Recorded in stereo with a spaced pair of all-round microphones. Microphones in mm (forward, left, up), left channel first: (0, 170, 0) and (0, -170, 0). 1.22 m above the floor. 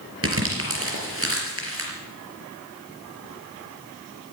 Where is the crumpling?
40° right (ahead or behind), 4 m.